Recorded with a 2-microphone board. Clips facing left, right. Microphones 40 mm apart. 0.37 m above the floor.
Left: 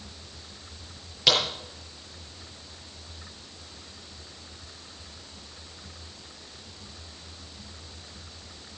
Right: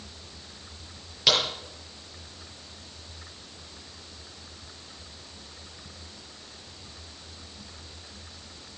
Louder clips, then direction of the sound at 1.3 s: Left 1 dB; centre (ahead or behind).